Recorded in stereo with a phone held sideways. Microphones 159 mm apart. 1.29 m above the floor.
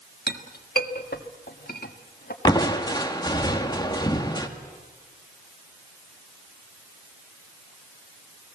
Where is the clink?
75° left (ahead or behind), 1.6 m.